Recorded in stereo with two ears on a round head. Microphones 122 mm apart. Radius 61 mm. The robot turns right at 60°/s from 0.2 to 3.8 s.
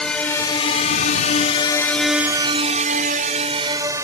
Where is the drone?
5° left (ahead or behind); by 4.0 s 25° right (ahead or behind).